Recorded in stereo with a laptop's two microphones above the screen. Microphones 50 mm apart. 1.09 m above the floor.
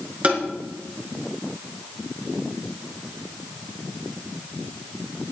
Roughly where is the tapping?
Right.